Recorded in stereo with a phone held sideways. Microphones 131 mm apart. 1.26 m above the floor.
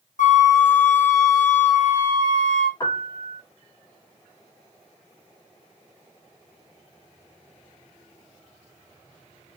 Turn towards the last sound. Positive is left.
turn(degrees=35)  # may be behind; listen again after turning